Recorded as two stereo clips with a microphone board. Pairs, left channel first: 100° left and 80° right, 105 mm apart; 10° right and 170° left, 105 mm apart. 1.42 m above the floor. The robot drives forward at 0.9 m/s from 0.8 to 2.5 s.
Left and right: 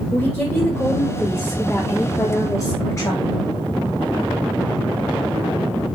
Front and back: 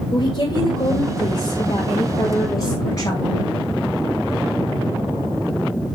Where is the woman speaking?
25° left, 4.5 m; by 3.4 s 35° left, 3.5 m.